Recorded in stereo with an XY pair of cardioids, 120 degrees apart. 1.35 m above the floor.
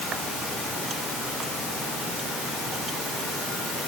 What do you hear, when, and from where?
Only background noise.